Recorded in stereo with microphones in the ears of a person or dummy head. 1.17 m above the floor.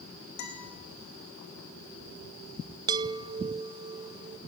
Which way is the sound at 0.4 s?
70° left (ahead or behind).